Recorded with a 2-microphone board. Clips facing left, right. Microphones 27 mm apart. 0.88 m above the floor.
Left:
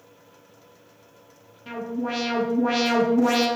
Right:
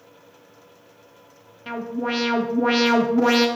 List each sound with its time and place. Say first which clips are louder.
1.7 s an alarm: right 2 dB; 30° right (ahead or behind), 0.7 m